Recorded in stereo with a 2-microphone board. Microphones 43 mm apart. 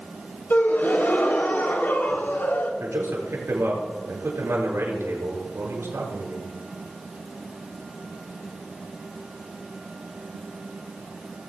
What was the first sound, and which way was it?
A gasp, 50° left (ahead or behind).